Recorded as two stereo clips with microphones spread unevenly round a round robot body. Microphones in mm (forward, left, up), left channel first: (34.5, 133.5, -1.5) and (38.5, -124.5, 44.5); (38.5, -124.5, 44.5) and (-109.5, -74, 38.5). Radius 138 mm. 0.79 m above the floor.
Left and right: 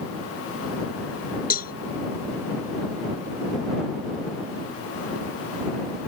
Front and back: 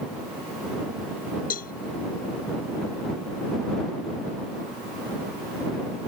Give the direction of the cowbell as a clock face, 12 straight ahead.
11 o'clock.